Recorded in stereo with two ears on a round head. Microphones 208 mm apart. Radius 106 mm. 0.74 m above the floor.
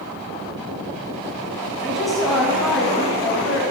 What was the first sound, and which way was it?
A woman speaking, centre (ahead or behind).